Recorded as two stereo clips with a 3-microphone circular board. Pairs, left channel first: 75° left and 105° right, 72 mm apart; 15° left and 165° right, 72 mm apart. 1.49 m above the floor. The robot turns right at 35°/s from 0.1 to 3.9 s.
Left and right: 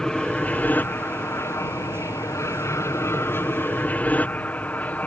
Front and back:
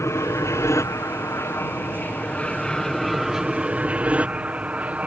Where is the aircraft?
Straight ahead; by 5.1 s 130° left.